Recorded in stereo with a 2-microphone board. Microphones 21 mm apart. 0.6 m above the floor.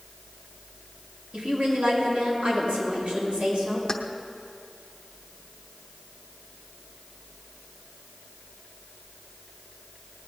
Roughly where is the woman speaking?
Right.